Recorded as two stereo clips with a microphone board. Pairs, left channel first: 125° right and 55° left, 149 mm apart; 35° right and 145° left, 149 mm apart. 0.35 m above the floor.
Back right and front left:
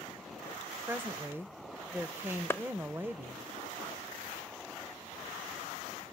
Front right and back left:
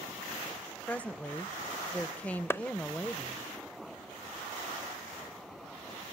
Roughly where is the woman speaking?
Ahead left.